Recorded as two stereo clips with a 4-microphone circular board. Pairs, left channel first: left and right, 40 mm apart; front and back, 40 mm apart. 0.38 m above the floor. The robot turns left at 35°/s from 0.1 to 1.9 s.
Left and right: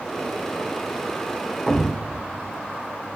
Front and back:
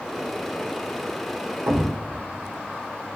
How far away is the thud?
About 2.5 m.